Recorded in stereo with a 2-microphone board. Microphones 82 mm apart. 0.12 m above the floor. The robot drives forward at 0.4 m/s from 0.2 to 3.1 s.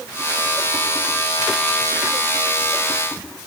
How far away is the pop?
No pop in this recording.